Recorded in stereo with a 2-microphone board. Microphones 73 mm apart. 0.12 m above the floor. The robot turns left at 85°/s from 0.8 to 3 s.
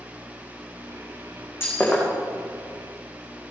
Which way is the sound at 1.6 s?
35° left (ahead or behind).